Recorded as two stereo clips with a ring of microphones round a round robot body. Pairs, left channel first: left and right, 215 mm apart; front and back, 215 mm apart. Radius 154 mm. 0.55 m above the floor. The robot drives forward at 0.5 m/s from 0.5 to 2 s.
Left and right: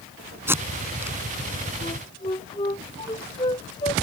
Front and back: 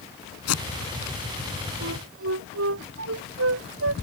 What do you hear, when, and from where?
0.5 s tape being pulled: 10° right
1.8 s a flute: 165° left